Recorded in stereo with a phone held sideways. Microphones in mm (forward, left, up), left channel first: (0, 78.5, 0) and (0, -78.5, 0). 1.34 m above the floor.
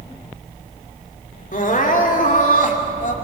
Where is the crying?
60° left (ahead or behind), 2.5 m.